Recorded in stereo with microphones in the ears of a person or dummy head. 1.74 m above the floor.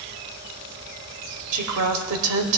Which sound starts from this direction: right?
A woman speaking, at 1.5 s.